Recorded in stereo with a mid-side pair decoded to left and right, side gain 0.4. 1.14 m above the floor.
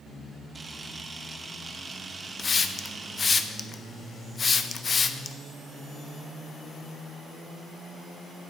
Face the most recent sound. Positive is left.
turn(degrees=40)